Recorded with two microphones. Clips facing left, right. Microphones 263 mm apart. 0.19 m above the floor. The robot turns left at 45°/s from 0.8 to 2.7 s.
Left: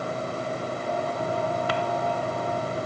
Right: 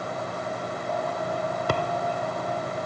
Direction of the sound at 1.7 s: 50° right (ahead or behind).